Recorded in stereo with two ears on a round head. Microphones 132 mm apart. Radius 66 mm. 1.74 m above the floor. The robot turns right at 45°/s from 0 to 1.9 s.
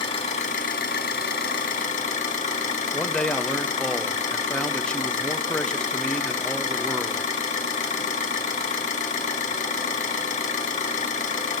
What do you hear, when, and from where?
0.0 s an engine running: 40° left, 1.8 m; by 11.6 s 125° left, 1.8 m
2.9 s a man speaking: 5° left (ahead or behind), 0.7 m